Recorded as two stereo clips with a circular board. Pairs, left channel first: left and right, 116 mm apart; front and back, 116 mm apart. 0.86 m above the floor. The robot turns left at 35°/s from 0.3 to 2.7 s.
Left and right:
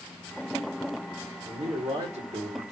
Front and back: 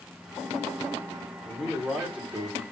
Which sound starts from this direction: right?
A man speaking, at 1.4 s.